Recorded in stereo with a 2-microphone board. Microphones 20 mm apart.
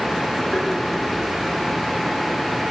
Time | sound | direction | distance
0.5 | tapping | 65° left (ahead or behind) | 10 m